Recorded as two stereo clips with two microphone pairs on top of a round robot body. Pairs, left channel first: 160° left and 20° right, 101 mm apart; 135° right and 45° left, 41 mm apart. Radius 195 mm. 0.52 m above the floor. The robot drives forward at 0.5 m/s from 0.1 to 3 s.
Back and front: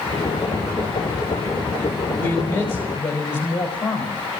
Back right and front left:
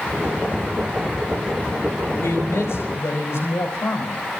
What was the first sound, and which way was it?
A man speaking, 140° right.